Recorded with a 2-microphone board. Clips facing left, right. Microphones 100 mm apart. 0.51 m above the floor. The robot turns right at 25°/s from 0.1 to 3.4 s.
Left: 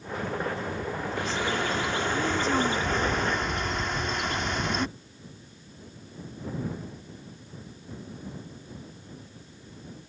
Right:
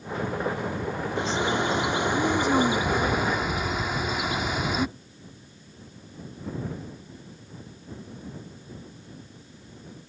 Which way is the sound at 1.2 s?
20° right (ahead or behind).